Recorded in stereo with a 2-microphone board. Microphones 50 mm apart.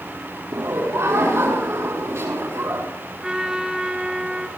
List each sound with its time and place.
0.5 s laughter: 75° right (ahead or behind), 5.5 m
3.2 s a trumpet: 15° right (ahead or behind), 3 m